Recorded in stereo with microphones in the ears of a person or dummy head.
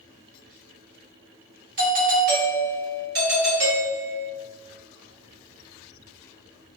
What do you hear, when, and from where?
1.8 s a doorbell: 50° right (ahead or behind), 1.5 m